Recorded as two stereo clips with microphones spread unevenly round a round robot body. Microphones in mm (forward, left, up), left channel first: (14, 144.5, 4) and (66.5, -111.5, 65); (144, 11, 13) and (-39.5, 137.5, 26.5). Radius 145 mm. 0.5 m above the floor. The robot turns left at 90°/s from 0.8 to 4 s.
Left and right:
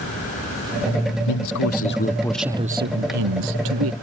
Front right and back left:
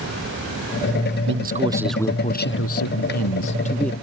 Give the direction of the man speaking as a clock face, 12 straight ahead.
8 o'clock.